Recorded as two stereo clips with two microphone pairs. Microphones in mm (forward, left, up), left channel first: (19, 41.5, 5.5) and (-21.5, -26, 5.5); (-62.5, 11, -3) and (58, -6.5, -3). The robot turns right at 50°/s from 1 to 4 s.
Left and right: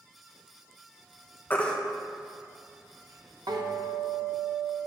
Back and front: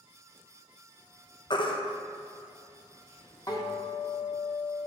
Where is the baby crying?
125° left, 0.6 m; by 3.6 s 130° right, 0.6 m.